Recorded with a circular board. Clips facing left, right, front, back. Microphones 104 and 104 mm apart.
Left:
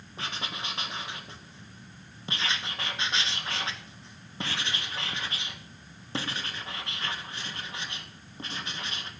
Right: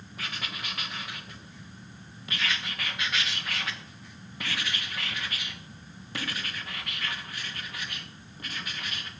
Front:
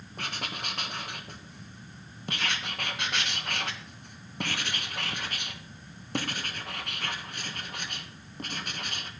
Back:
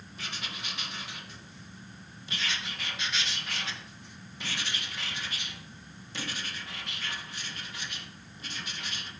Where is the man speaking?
I don't hear a man speaking.